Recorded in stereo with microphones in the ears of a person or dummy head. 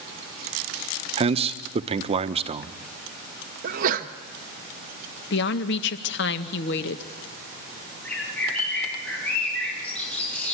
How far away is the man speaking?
About 0.8 m.